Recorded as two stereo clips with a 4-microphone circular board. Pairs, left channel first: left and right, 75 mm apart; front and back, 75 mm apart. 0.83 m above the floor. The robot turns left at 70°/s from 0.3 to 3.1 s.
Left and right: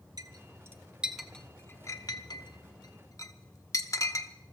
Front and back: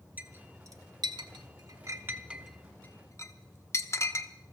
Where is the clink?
115° right, 1.1 m; by 4.3 s 50° left, 1.1 m.